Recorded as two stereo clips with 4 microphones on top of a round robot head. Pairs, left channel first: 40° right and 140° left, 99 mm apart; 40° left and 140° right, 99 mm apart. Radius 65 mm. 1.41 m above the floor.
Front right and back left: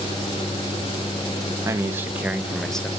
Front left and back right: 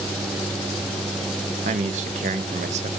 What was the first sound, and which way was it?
A man speaking, 155° right.